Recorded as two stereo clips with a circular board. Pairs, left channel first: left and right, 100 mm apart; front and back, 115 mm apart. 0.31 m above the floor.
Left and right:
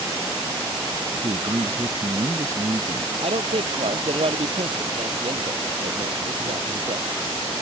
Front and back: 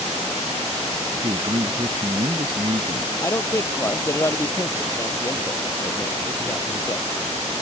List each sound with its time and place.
1.2 s a man speaking: 145° right
3.2 s a man speaking: 65° right